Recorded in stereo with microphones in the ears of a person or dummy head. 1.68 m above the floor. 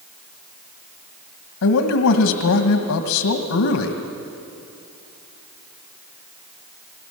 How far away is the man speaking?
About 1.7 m.